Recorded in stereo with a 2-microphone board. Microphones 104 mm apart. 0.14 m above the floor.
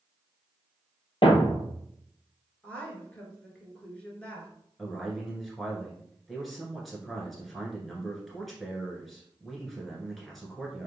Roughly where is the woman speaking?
Centre.